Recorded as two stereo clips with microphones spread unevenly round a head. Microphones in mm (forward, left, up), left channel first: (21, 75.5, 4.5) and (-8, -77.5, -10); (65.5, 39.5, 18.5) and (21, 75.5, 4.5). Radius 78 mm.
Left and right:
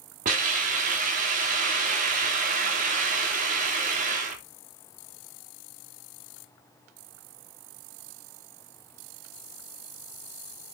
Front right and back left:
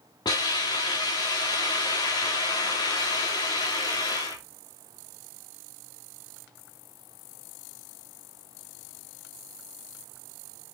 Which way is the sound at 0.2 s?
60° right.